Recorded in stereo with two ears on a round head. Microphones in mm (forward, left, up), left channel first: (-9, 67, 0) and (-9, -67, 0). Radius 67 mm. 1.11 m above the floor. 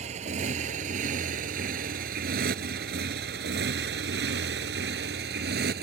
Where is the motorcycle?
50° right (ahead or behind); by 5.8 s 70° right (ahead or behind).